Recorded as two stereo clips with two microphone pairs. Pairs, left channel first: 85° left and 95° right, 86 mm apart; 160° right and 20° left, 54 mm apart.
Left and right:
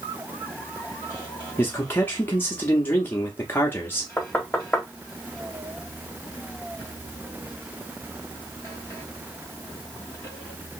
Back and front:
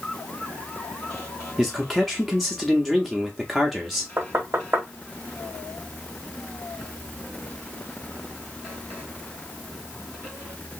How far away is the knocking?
About 1.0 m.